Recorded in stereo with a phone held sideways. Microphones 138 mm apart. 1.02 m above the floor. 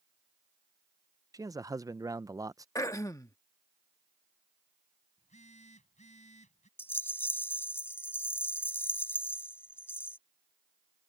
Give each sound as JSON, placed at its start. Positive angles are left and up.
{"t": 1.3, "sound": "a man speaking", "side_deg": -25}
{"t": 2.8, "sound": "throat clearing", "side_deg": 25}
{"t": 5.2, "sound": "a phone buzzing", "side_deg": 60}
{"t": 6.8, "sound": "a rattle", "side_deg": 15}